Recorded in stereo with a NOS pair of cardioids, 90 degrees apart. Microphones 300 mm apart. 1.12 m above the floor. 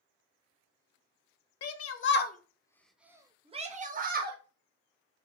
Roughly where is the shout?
Ahead left.